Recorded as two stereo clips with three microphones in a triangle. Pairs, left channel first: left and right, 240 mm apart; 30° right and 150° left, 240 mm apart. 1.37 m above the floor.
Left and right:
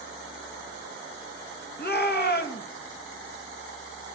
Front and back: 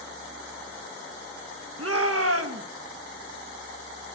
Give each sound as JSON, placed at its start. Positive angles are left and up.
{"t": 1.8, "sound": "a shout", "azimuth_deg": 135, "distance_m": 2.0}